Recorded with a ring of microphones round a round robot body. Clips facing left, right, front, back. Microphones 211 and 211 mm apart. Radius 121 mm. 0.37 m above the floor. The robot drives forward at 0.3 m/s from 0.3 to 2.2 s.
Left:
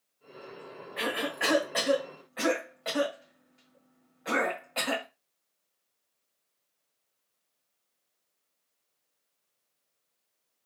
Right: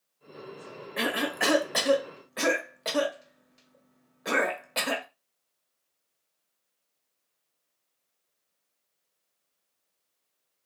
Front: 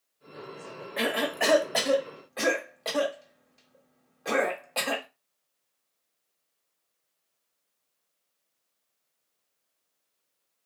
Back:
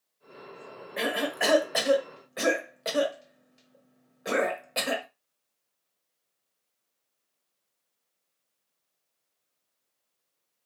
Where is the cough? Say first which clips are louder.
Right 3 dB, front 1 dB; 95° right, 1.3 m; by 5.1 s 110° right, 1.4 m.